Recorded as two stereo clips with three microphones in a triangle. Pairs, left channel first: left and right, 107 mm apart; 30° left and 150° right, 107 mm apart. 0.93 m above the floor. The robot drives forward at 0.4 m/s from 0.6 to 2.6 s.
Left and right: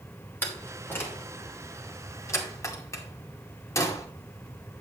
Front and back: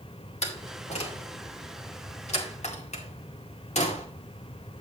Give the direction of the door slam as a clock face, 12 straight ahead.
11 o'clock.